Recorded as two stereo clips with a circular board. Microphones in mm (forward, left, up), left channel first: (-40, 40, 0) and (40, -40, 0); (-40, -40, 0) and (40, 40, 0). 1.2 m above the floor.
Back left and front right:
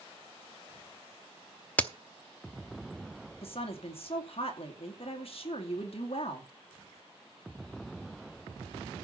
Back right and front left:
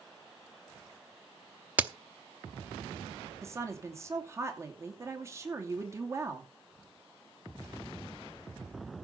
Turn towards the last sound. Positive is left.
turn(degrees=110)